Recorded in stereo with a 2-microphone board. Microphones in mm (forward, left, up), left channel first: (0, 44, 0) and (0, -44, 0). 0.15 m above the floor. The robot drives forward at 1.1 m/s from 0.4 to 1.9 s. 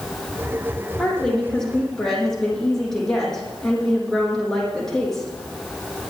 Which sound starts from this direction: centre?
A woman speaking, at 1.0 s.